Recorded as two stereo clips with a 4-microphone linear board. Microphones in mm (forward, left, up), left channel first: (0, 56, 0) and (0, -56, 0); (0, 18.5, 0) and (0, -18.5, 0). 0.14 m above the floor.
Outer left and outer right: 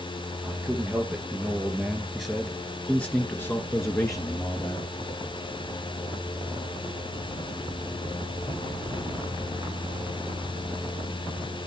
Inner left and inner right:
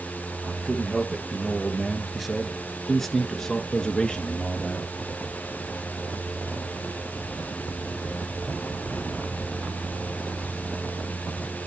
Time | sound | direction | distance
0.4 | a man speaking | 15° right (ahead or behind) | 3 m